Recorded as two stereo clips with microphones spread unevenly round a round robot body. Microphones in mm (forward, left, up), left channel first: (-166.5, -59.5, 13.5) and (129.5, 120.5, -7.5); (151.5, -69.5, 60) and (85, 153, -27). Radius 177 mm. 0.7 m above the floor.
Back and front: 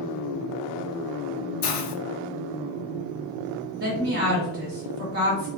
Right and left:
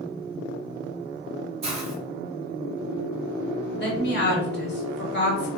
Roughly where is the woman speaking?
Ahead right.